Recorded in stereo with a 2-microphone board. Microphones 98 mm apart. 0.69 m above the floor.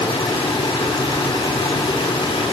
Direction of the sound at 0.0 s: 65° left (ahead or behind).